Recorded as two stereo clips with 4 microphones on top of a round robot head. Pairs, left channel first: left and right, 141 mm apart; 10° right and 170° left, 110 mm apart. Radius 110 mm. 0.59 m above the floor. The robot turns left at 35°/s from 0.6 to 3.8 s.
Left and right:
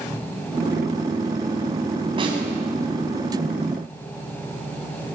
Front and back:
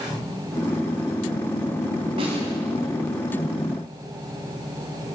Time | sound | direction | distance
2.2 | a snare drum | 140° right | 6.5 m